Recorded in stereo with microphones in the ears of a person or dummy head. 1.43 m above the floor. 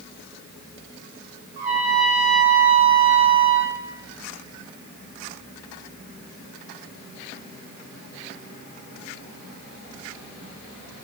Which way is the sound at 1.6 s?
35° right (ahead or behind).